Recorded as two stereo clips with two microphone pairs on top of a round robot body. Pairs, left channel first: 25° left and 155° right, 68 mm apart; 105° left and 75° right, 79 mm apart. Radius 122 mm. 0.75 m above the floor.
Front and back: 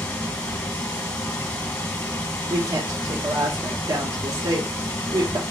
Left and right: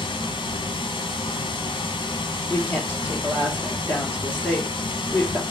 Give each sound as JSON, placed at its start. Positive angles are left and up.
{"t": 0.0, "sound": "running water", "azimuth_deg": 95, "distance_m": 2.5}
{"t": 2.5, "sound": "a woman speaking", "azimuth_deg": 180, "distance_m": 2.0}